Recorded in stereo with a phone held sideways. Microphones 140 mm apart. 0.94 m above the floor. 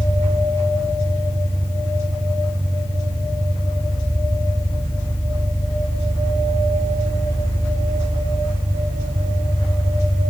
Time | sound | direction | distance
0.0 | an engine running | 5° left (ahead or behind) | 9.5 m